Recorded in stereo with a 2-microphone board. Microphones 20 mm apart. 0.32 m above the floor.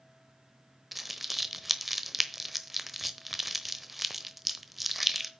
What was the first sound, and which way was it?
Crumpling, 10° right (ahead or behind).